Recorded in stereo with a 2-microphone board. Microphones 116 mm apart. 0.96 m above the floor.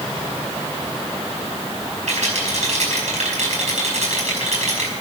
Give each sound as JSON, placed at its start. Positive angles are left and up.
{"t": 2.1, "sound": "a rattle", "side_deg": -75, "distance_m": 5.5}